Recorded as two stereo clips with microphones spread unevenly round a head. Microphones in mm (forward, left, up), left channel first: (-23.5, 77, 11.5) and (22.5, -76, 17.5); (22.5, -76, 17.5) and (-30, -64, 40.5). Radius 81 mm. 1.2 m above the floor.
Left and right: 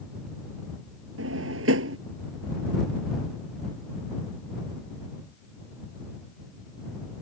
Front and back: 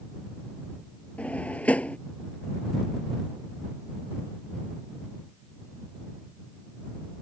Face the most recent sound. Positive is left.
turn(degrees=-80)